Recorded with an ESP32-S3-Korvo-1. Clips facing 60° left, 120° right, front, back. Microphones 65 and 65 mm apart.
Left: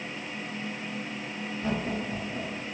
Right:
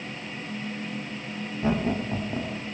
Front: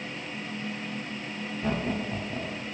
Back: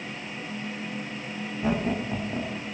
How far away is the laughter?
About 1.3 m.